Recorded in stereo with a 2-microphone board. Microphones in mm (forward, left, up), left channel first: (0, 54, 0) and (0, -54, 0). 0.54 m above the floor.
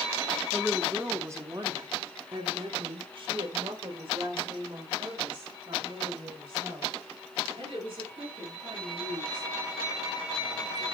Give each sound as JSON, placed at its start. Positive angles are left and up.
{"t": 0.5, "sound": "a woman speaking", "side_deg": -5, "distance_m": 0.9}